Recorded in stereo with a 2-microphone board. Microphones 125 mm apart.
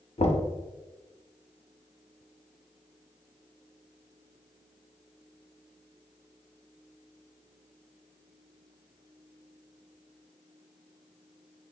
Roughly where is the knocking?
Left.